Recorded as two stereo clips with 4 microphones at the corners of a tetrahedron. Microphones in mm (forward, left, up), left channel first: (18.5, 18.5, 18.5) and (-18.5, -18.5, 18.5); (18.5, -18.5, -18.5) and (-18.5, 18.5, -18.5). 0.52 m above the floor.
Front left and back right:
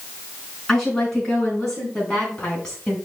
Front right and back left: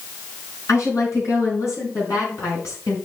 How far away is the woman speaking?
About 5 m.